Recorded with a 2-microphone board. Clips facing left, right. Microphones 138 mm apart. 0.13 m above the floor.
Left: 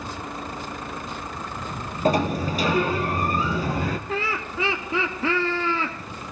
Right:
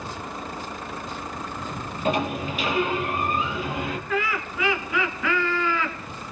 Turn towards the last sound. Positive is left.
turn(degrees=30)  # may be behind; listen again after turning